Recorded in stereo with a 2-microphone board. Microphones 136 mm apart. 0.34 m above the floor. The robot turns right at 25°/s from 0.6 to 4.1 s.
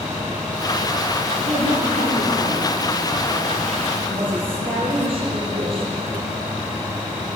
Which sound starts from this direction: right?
A woman speaking, at 1.4 s.